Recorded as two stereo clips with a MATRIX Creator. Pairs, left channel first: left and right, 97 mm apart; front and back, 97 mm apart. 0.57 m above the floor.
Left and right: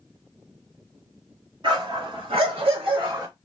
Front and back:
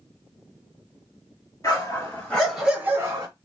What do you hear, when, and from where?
1.6 s a dog barking: 55° right, 1.9 m; by 3.3 s 135° right, 1.2 m